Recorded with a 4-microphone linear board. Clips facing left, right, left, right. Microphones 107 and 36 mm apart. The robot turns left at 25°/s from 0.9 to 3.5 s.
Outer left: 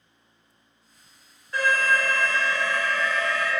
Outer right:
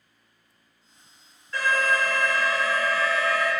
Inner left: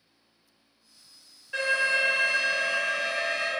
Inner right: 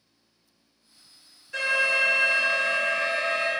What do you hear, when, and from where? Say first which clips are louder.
1.5 s an alarm: outer left 1 dB, inner right 2 dB; 20° left (ahead or behind), 1.6 m; by 3.5 s 10° left (ahead or behind), 1.6 m